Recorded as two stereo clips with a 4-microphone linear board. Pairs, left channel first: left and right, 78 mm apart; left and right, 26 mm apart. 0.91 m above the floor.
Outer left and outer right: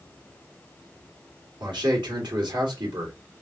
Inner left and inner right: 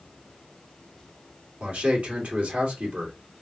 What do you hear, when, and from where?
1.6 s a man speaking: 70° right (ahead or behind), 2 m